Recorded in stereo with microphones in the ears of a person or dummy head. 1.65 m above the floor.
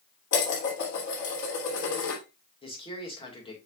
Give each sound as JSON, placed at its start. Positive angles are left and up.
{"t": 0.3, "sound": "dishes clattering", "side_deg": 70, "distance_m": 2.5}
{"t": 2.6, "sound": "a man speaking", "side_deg": 25, "distance_m": 2.0}